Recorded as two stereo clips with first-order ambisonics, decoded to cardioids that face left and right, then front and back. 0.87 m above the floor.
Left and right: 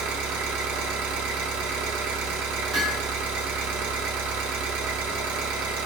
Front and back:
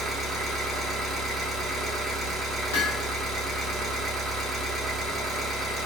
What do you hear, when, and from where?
0.0 s an engine running: 95° right, 1.1 m
2.7 s hammering: 15° right, 1.2 m